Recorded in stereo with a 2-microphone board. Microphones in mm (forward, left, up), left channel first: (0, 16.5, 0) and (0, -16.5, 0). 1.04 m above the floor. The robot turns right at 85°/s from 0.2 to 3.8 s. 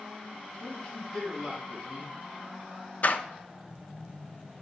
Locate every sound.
0.6 s a man speaking: 115° left, 2.5 m; by 2.2 s 110° right, 2.5 m
3.0 s a door slam: 50° left (ahead or behind), 0.6 m; by 3.2 s 60° left (ahead or behind), 0.6 m